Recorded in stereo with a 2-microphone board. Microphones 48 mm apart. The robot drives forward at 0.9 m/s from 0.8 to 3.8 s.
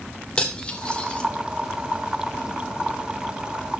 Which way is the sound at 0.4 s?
20° left (ahead or behind).